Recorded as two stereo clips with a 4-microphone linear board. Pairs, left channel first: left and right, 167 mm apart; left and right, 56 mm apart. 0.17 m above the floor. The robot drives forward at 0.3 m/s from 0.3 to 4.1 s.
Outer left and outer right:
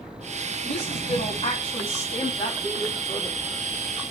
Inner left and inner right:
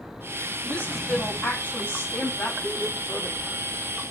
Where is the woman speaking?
35° left (ahead or behind), 6 m.